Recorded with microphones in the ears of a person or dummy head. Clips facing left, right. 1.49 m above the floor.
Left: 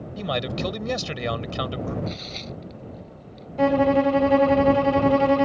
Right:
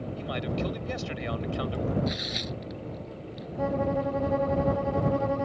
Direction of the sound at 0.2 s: 70° left (ahead or behind).